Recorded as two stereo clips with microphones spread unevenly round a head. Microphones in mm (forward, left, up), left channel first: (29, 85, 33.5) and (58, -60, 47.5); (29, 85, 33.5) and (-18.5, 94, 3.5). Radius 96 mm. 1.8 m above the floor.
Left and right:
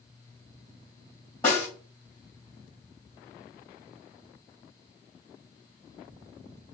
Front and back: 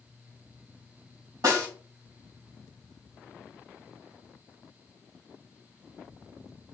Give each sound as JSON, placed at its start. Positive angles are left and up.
{"t": 1.4, "sound": "a snare drum", "azimuth_deg": 180, "distance_m": 2.5}